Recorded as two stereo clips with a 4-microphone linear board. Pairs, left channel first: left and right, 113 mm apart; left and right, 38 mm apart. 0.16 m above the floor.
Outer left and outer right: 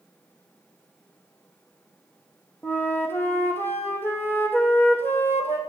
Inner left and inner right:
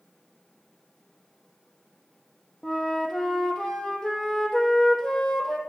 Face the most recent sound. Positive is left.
turn(degrees=20)  # may be behind; listen again after turning